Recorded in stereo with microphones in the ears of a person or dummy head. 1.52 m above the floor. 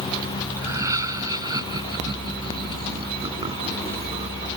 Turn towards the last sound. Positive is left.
turn(degrees=-35)  # may be behind; listen again after turning